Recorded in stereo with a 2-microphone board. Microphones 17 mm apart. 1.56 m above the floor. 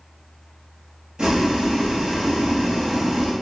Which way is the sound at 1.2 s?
55° right (ahead or behind).